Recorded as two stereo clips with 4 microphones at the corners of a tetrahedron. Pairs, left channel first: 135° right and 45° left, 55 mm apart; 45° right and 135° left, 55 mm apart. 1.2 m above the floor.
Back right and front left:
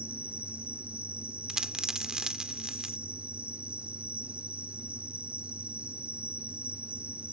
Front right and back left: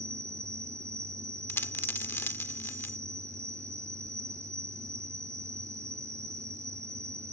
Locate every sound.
0.0 s an insect: 110° left
1.5 s a dropped coin: 30° right